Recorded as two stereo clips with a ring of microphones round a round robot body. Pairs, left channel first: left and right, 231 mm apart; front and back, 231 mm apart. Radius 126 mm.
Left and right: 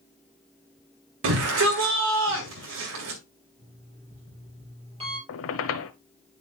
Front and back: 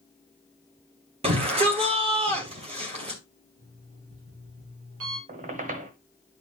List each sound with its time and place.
1.2 s a shout: 115° right, 2 m
3.6 s an alarm clock: 155° right, 5.5 m
5.3 s a squeak: 115° left, 1.1 m